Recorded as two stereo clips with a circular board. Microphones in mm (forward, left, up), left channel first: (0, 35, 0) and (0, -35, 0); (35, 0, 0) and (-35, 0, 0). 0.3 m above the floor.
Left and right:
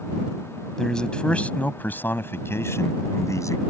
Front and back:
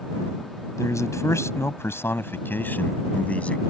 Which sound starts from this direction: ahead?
A man speaking, at 0.8 s.